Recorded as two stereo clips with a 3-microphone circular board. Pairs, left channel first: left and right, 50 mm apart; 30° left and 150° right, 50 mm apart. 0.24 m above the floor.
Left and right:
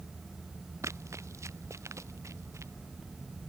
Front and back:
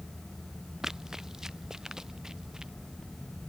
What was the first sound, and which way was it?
Running footsteps, 70° right.